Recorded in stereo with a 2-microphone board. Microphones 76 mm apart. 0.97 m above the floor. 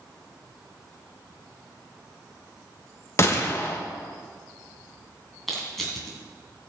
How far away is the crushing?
About 3 m.